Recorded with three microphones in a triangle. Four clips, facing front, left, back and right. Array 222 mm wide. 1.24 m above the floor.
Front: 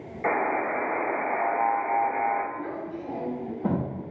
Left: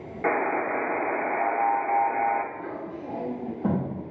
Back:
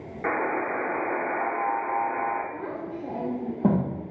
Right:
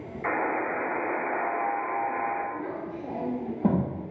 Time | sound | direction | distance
0.2 | a buzzer | 110° left | 0.9 m
2.5 | a child speaking | 165° right | 0.7 m